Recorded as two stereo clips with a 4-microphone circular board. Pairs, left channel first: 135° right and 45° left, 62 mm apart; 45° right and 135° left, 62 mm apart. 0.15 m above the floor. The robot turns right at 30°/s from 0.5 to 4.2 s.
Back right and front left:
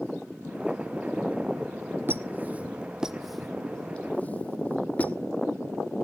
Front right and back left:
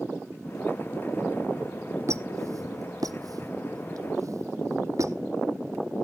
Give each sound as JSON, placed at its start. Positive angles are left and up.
{"t": 2.1, "sound": "a squeak", "azimuth_deg": 95, "distance_m": 0.7}